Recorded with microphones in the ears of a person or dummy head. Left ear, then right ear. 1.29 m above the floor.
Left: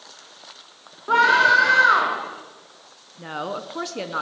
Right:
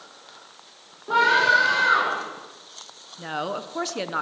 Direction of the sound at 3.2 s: 10° right (ahead or behind).